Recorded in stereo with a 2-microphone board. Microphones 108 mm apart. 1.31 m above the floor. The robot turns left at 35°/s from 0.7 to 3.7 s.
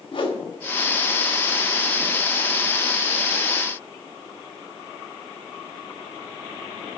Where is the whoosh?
55° left (ahead or behind), 1.0 m.